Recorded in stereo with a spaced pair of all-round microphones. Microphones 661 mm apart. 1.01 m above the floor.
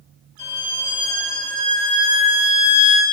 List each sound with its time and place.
0.4 s a violin: 65° right (ahead or behind), 6 m